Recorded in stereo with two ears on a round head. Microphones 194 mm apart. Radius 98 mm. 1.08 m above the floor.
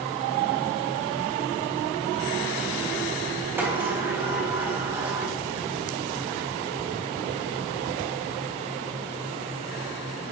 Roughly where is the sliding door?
Centre.